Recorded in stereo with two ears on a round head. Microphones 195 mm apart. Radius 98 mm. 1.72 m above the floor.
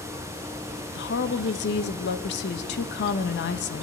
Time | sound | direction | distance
0.9 | a woman speaking | 55° left (ahead or behind) | 1.5 m